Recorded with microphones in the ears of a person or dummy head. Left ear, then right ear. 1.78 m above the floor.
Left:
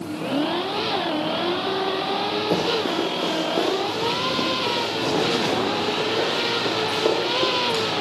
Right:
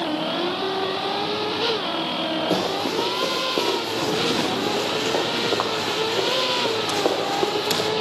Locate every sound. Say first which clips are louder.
2.5 s running footsteps: left 1 dB; 5° right (ahead or behind), 3.5 m; by 7.9 s 45° right (ahead or behind), 6 m